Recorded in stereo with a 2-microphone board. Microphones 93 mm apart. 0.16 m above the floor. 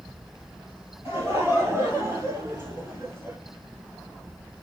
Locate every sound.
1.1 s laughter: 25° right (ahead or behind), 4 m